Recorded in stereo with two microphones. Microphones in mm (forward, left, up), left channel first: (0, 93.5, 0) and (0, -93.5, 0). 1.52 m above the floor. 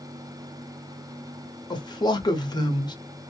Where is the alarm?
I don't hear an alarm.